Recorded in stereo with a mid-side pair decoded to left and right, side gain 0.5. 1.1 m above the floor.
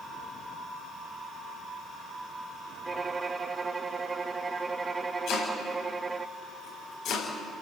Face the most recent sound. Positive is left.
turn(degrees=65)